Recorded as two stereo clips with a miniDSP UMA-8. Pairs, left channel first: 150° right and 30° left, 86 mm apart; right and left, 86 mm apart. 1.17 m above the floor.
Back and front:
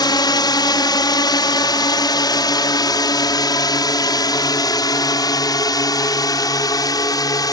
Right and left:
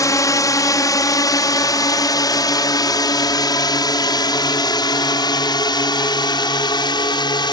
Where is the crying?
No crying in this recording.